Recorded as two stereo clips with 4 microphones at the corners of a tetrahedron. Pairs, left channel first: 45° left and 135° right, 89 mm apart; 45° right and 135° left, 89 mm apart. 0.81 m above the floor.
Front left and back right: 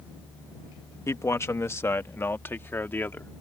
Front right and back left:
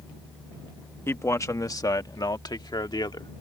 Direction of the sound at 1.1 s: Straight ahead.